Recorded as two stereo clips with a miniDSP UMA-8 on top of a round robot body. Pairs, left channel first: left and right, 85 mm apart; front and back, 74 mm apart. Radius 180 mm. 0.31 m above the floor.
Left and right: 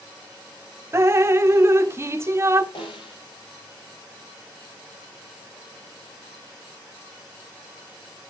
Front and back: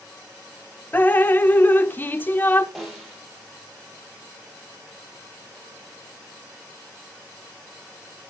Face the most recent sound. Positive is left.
turn(degrees=95)